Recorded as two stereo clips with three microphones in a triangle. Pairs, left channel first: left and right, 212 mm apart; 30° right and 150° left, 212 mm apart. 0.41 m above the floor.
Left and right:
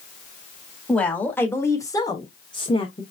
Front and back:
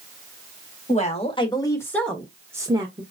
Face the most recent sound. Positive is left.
turn(degrees=125)